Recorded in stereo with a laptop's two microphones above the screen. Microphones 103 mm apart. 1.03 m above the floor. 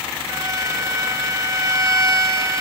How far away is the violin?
About 1.0 m.